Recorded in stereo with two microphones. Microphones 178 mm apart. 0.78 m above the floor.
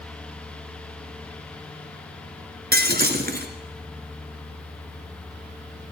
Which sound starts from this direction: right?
Breaking glass, at 2.7 s.